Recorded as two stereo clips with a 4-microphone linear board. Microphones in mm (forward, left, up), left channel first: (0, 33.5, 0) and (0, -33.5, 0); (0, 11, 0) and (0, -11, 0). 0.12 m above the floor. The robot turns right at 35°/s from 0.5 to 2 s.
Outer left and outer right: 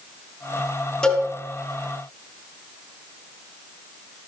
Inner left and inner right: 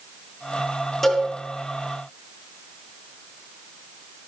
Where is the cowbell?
15° left (ahead or behind), 2.5 m; by 1.3 s 25° left (ahead or behind), 2.5 m.